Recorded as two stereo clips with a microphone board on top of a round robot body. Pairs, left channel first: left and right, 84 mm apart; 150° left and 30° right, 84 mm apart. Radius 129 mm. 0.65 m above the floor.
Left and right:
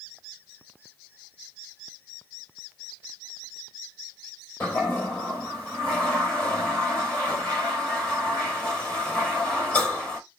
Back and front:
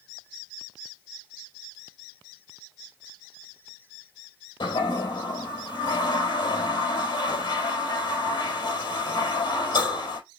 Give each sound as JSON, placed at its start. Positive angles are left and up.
{"t": 4.6, "sound": "a toilet flushing", "azimuth_deg": 160, "distance_m": 3.0}